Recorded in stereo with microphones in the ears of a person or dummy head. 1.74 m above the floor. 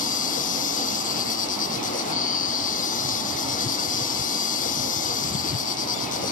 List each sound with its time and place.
0.0 s an insect: 35° left (ahead or behind)